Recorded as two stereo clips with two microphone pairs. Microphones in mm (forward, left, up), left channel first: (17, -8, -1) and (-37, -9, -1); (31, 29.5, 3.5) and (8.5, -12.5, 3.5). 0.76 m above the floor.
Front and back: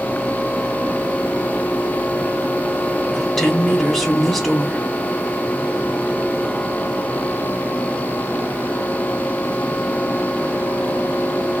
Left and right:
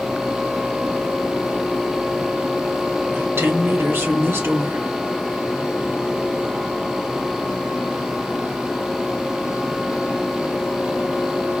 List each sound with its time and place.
3.1 s a woman speaking: 85° right, 2 m